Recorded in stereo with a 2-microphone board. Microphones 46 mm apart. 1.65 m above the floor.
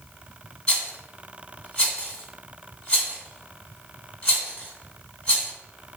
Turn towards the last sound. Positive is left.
turn(degrees=20)  # may be behind; listen again after turning